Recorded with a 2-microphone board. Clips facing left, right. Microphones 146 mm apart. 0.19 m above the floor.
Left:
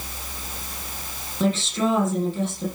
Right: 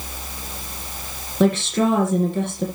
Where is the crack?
I don't hear a crack.